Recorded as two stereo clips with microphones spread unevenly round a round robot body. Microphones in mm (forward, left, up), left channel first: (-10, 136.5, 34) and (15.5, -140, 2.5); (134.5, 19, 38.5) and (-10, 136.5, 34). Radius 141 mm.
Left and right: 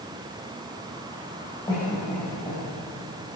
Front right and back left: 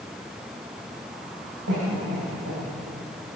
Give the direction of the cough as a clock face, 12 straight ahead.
6 o'clock.